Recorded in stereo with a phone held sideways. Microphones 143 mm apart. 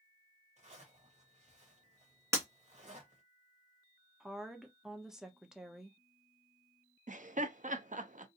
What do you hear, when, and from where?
0.6 s a zipper: 50° right (ahead or behind), 1.4 m
2.3 s breaking glass: 20° right (ahead or behind), 1.6 m
4.2 s a woman speaking: 5° right (ahead or behind), 0.7 m
7.1 s laughter: 65° right (ahead or behind), 0.6 m